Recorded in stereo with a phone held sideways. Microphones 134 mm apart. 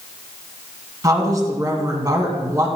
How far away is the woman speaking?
About 2.5 m.